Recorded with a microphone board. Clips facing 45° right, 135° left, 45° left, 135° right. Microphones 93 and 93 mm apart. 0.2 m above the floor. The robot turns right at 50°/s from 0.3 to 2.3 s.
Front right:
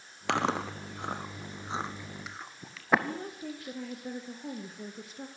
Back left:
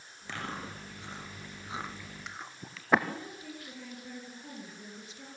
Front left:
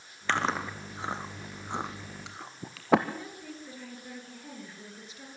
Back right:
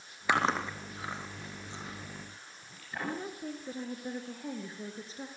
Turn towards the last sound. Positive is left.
turn(degrees=-80)